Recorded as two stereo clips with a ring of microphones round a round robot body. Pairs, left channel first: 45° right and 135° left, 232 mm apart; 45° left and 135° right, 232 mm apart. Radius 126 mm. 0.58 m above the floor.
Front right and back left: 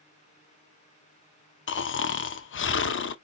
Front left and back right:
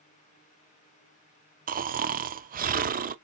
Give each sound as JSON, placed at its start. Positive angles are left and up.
{"t": 1.7, "sound": "snoring", "azimuth_deg": -80, "distance_m": 0.7}